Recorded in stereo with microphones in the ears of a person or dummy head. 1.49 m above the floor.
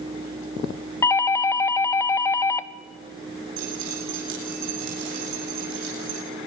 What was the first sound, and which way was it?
A doorbell, 20° left (ahead or behind).